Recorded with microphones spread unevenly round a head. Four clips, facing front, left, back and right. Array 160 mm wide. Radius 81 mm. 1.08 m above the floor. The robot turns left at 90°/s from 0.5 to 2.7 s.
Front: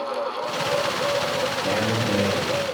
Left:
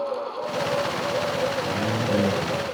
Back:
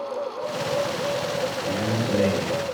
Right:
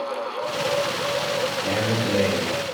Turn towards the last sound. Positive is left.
turn(degrees=-140)